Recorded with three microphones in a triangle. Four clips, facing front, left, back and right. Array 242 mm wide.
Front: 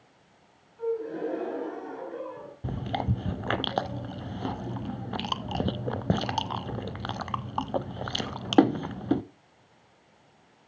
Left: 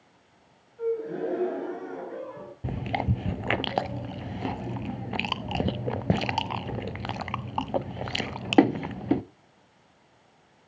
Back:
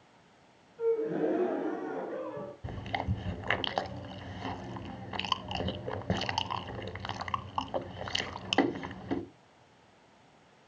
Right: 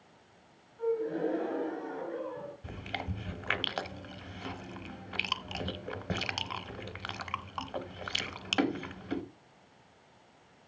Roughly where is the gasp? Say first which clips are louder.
Left 2 dB, back 1 dB; behind left.